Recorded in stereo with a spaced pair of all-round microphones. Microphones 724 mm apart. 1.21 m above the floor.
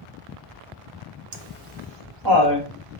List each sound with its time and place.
1.3 s laughter: 55° right (ahead or behind), 0.9 m; by 2.7 s 25° right (ahead or behind), 2 m